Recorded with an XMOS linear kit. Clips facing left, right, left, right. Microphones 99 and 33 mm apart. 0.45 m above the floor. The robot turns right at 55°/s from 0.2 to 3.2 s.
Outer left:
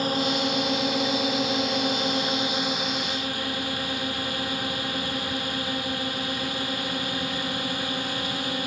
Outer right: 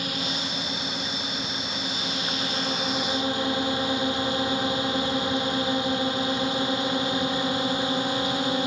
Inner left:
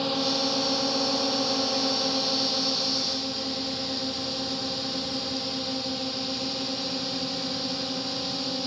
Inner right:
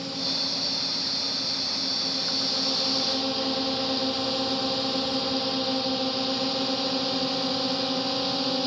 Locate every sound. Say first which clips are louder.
0.0 s a drone: outer left 7 dB, inner left 4 dB; 35° left; by 8.7 s 160° right